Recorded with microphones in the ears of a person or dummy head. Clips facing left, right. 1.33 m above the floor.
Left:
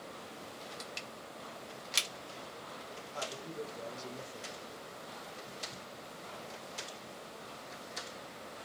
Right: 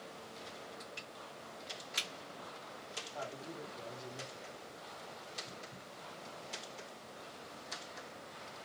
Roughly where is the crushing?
Left.